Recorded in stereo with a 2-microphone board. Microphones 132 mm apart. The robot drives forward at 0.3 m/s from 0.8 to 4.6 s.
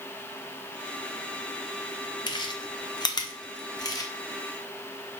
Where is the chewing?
35° left (ahead or behind), 0.6 m; by 4.1 s 25° left (ahead or behind), 0.8 m.